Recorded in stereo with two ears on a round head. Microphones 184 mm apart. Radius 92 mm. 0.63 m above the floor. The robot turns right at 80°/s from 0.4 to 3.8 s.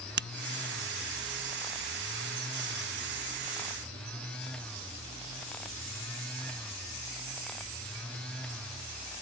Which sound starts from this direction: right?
A finger snap, at 0.2 s.